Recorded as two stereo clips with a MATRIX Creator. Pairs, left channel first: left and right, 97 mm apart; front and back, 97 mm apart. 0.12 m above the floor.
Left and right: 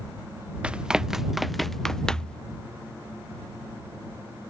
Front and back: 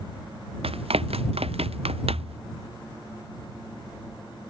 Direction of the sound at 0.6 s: 170° right.